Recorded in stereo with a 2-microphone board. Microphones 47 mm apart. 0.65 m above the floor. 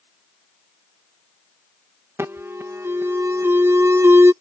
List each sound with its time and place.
2.2 s an alarm: 60° right (ahead or behind)